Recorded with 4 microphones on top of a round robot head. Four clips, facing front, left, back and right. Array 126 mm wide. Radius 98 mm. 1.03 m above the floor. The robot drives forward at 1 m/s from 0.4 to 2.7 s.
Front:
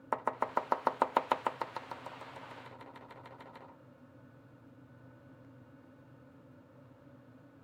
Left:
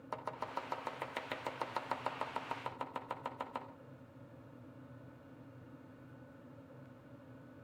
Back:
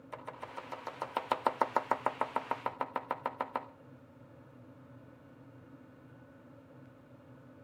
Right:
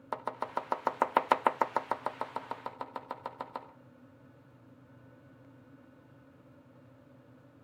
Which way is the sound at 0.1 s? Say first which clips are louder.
Right 6 dB, front 11 dB; 25° right.